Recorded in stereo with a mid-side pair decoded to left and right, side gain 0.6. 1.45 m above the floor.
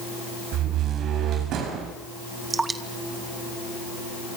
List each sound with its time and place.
0.5 s a door slam: 60° right, 8.5 m
2.5 s dripping: 20° right, 2.5 m